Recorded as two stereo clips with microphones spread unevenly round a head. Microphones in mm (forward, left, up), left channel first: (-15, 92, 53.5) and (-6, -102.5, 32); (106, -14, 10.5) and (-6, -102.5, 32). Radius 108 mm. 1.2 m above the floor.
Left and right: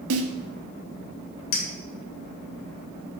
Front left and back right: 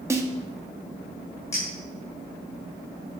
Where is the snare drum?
70° right, 1.6 m.